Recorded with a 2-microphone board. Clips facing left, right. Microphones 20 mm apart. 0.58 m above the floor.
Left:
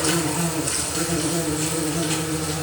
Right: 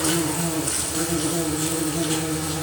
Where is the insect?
5° left (ahead or behind), 3 m.